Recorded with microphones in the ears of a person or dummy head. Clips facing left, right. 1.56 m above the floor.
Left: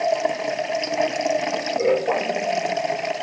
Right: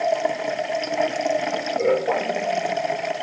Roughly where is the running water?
Centre.